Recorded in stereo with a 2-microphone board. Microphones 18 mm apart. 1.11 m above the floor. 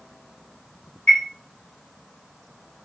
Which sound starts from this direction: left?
A chime, at 1.1 s.